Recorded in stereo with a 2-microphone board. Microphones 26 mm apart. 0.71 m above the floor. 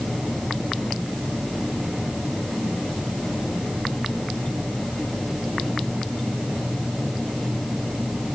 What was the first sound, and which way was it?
Only background noise.